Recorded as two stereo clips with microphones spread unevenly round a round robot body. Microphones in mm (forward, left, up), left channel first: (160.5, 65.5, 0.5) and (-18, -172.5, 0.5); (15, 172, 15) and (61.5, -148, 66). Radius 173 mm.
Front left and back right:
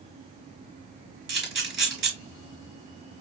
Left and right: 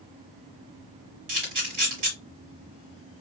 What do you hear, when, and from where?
1.3 s a camera shutter: 75° right, 3.5 m